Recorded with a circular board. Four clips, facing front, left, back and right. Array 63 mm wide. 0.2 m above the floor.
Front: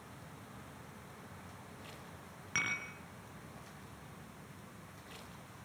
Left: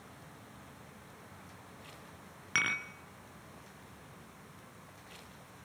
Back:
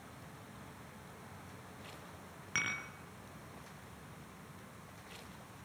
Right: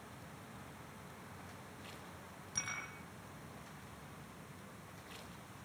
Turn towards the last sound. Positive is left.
turn(degrees=90)